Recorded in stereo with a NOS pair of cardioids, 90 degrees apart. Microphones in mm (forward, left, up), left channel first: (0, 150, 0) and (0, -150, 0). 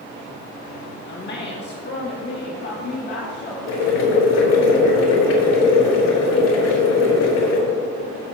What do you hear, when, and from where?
1.1 s a woman speaking: 35° left, 1.4 m
3.7 s boiling: 60° left, 3.5 m